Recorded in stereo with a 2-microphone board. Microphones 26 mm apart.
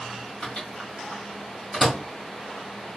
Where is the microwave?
15° left (ahead or behind), 1.6 m.